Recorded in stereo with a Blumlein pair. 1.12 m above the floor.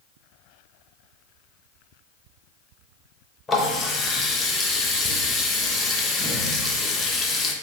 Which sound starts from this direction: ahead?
A running tap, at 3.5 s.